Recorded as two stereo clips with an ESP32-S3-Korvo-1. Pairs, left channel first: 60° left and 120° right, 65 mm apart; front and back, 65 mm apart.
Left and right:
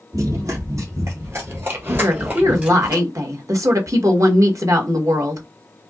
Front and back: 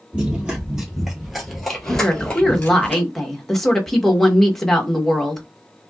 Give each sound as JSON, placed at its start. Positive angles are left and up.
{"t": 0.1, "sound": "running footsteps", "azimuth_deg": -110, "distance_m": 1.9}
{"t": 2.0, "sound": "a woman speaking", "azimuth_deg": -85, "distance_m": 1.2}